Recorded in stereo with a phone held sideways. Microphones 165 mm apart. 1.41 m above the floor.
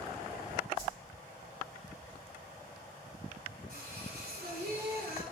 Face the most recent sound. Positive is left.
turn(degrees=-80)